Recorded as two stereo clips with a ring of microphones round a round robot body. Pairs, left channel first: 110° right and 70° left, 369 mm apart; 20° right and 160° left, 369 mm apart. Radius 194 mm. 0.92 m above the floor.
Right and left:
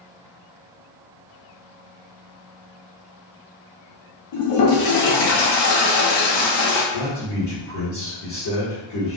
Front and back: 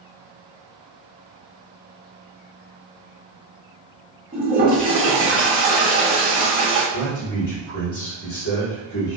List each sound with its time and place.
4.3 s a toilet flushing: 125° right, 0.8 m
6.9 s a man speaking: 70° right, 2.0 m